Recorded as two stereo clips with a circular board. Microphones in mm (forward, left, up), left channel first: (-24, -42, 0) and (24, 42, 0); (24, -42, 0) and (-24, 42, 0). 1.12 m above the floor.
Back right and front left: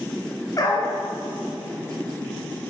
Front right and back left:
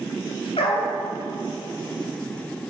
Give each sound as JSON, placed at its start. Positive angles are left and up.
{"t": 0.6, "sound": "a dog barking", "azimuth_deg": -65, "distance_m": 3.0}